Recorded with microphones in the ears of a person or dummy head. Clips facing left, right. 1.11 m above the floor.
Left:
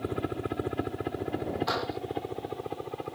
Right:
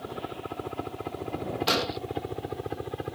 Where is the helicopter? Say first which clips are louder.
Left 5 dB; 30° left (ahead or behind); by 3.1 s 10° right (ahead or behind).